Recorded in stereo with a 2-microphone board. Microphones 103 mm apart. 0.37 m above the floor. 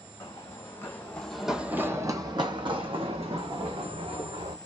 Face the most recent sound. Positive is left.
turn(degrees=-80)